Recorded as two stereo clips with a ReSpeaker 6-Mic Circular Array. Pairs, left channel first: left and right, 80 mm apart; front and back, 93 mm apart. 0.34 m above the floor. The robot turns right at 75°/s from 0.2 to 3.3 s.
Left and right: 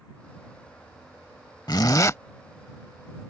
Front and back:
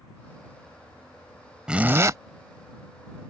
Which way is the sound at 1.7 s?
100° left.